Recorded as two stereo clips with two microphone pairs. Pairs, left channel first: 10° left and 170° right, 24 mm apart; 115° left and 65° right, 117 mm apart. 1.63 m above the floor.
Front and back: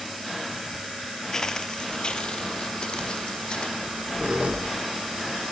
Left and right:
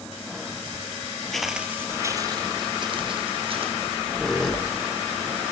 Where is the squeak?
160° right, 2.5 m.